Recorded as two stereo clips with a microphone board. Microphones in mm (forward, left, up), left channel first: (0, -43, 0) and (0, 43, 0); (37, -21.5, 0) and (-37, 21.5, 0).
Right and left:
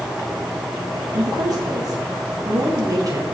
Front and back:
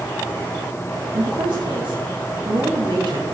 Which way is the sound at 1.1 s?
135° left.